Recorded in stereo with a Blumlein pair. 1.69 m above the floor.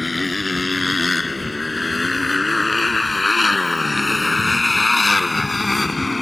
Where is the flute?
I don't hear a flute.